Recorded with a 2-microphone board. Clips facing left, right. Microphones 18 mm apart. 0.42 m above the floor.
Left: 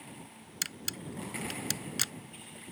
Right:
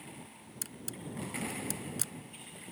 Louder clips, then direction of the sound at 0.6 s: Left 7 dB; 55° left (ahead or behind).